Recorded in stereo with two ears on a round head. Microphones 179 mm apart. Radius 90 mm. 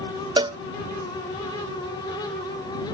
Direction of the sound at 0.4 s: 20° right (ahead or behind).